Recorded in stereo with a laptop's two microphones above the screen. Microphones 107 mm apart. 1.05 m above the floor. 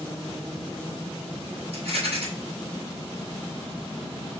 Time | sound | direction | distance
1.7 | a rattle | 65° right (ahead or behind) | 2.5 m